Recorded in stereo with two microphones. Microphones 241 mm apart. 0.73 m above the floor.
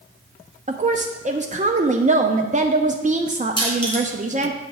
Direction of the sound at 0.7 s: 30° right (ahead or behind).